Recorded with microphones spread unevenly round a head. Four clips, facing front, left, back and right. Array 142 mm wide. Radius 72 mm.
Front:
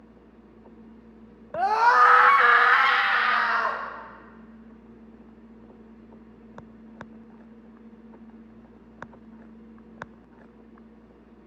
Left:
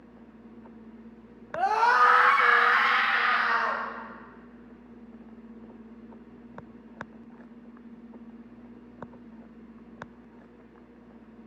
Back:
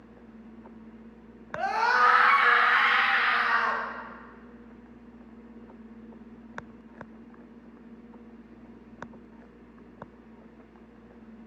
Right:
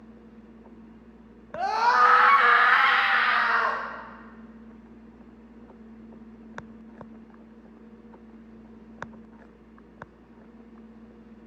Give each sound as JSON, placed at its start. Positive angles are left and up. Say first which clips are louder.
{"t": 1.5, "sound": "a scream", "louder": "even, front 6 dB", "azimuth_deg": 25, "distance_m": 1.0}